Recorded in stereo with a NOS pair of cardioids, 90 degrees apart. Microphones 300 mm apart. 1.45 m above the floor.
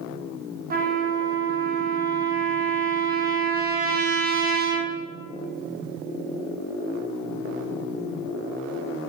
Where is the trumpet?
30° right, 0.6 m.